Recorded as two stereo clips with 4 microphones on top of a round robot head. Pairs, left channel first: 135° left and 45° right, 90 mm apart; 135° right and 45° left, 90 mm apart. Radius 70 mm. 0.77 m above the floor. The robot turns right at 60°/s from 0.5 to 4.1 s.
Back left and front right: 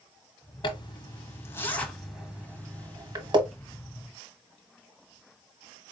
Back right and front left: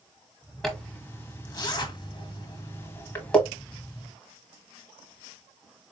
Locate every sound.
0.6 s a zipper: 135° left, 1.1 m; by 3.4 s 55° right, 1.1 m